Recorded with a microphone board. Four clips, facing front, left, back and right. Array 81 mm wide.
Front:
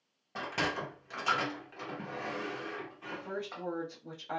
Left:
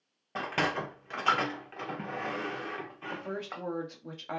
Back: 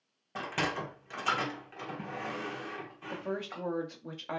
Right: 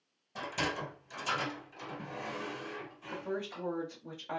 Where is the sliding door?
95° left, 0.6 m.